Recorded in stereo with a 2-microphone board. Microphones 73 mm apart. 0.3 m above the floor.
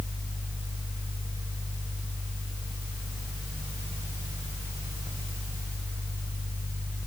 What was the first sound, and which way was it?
Only background noise.